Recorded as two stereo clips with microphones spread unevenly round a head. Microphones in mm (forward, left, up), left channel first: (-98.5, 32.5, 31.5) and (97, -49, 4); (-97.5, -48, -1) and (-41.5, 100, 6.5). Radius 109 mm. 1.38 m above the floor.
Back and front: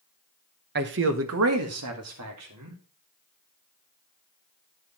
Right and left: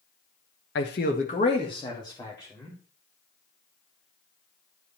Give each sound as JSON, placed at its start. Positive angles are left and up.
{"t": 0.8, "sound": "a man speaking", "azimuth_deg": -70, "distance_m": 1.0}